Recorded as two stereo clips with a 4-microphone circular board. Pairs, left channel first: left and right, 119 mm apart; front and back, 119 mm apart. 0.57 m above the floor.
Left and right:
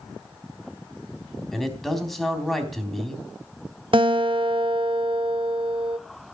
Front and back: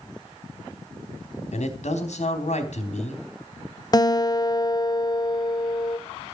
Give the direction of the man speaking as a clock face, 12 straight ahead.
12 o'clock.